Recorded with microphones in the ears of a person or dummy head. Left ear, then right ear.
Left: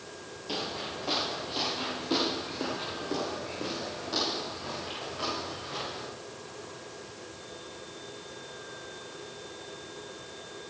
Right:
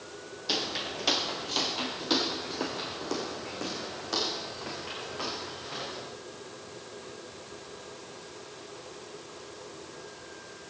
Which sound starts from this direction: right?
Footsteps, at 0.5 s.